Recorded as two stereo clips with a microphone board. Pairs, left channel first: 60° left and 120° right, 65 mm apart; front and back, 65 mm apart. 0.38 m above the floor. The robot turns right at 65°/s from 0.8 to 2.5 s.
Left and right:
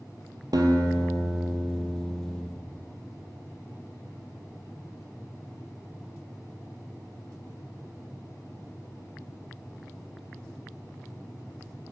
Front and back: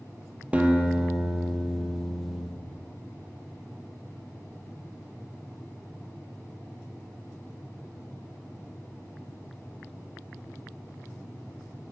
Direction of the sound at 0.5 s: 110° right.